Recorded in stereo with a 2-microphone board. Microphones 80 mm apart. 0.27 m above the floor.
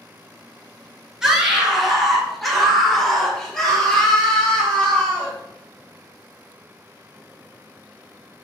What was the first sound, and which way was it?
A scream, 10° right (ahead or behind).